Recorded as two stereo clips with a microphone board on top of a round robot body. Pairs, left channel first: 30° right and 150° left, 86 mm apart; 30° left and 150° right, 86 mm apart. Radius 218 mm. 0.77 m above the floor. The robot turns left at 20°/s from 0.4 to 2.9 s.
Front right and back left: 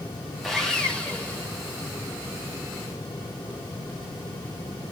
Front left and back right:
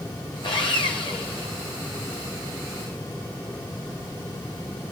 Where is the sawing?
55° left, 0.9 m; by 1.5 s 35° left, 0.9 m.